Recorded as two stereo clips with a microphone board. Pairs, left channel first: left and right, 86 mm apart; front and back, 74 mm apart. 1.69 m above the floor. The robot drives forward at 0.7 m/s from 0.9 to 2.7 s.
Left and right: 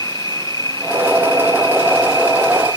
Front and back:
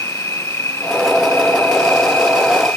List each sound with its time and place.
0.0 s an insect: 50° left; by 2.8 s 65° left